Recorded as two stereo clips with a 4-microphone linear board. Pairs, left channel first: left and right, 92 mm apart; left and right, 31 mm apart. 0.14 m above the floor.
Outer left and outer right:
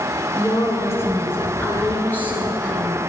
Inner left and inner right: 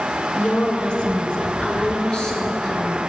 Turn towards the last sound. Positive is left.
turn(degrees=15)  # may be behind; listen again after turning